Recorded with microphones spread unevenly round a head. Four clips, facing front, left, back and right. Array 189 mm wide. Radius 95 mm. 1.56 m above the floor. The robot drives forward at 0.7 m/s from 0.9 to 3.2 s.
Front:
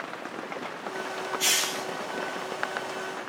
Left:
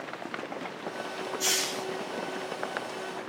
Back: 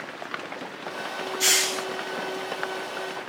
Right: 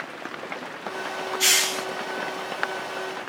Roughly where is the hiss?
Right.